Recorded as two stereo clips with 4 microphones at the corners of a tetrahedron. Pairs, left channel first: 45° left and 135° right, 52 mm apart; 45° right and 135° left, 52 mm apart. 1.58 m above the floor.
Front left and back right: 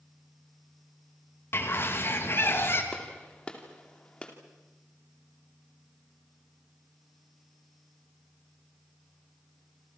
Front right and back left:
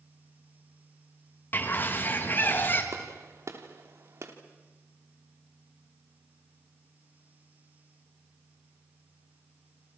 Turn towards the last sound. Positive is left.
turn(degrees=110)